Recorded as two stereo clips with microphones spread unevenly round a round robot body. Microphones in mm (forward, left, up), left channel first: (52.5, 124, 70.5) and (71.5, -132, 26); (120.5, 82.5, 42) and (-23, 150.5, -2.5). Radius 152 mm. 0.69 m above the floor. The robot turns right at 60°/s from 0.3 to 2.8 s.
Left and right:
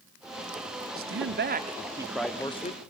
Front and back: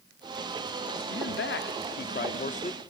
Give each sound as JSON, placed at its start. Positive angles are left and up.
{"t": 1.0, "sound": "a man speaking", "azimuth_deg": -75, "distance_m": 1.7}